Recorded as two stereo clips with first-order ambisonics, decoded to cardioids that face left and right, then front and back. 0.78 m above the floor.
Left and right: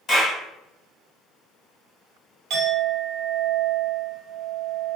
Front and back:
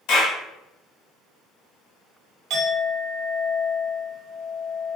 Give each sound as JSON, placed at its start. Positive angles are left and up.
{"t": 0.1, "sound": "a clap", "azimuth_deg": 30, "distance_m": 1.4}
{"t": 2.5, "sound": "a clink", "azimuth_deg": -135, "distance_m": 1.2}